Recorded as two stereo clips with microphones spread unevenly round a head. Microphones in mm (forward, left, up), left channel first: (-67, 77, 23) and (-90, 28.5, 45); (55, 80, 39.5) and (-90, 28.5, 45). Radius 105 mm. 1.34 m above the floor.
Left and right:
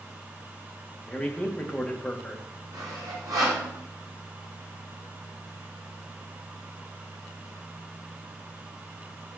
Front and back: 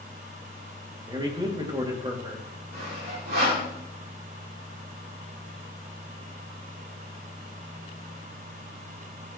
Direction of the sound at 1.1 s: 135° left.